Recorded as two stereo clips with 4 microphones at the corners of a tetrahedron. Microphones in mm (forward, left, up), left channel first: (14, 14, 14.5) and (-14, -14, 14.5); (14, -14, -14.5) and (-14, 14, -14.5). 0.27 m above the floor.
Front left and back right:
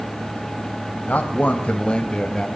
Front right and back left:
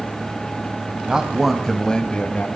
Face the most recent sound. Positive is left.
turn(degrees=-25)